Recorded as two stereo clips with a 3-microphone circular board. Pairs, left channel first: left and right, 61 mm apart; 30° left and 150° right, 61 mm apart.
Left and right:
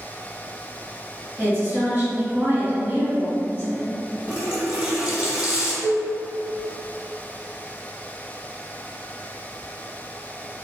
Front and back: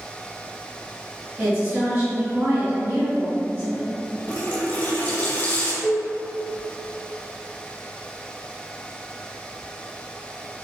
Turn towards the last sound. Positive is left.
turn(degrees=75)